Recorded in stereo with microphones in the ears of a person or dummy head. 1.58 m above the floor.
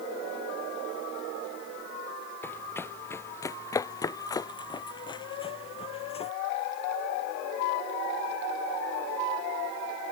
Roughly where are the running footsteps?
Centre.